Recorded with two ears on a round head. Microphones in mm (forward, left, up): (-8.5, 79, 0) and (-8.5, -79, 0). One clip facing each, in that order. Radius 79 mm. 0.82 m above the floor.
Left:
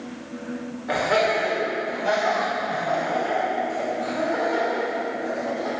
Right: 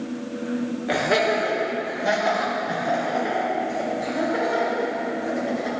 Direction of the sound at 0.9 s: 30° right (ahead or behind).